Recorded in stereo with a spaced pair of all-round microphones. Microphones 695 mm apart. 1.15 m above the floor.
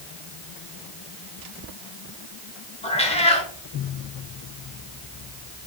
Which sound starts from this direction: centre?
A cat meowing, at 2.8 s.